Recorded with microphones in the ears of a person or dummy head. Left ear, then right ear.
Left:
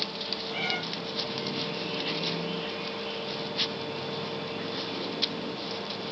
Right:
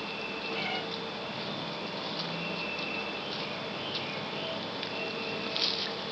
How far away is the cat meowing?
About 2.5 m.